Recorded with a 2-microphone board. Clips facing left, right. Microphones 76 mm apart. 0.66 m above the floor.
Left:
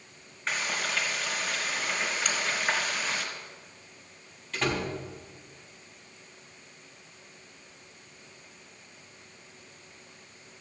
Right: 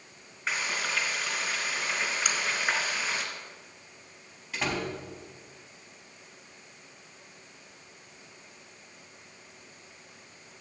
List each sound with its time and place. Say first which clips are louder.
0.5 s frying: even; 5° right (ahead or behind), 3 m
2.2 s a crack: even; 15° right (ahead or behind), 2.5 m
4.5 s a door slam: left 2 dB; 10° right (ahead or behind), 3.5 m